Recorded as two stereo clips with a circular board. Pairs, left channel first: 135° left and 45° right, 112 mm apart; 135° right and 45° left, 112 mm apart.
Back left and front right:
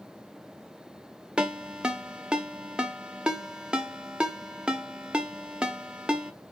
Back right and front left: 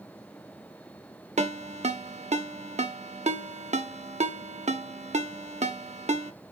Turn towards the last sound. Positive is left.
turn(degrees=35)